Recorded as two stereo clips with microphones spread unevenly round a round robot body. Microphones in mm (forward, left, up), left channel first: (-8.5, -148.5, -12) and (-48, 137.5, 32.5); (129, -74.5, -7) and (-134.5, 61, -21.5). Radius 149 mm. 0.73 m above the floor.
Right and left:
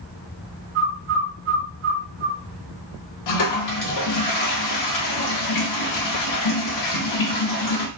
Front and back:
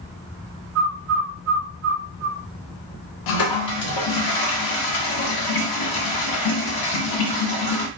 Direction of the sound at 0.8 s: 120° left.